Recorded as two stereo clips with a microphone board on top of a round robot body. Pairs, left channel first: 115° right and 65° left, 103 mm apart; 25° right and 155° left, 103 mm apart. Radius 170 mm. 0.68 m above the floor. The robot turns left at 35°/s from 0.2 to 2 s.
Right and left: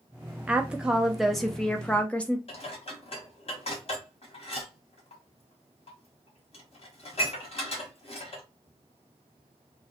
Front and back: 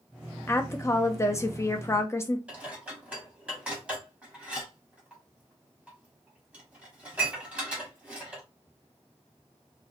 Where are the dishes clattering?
125° right, 1.4 m.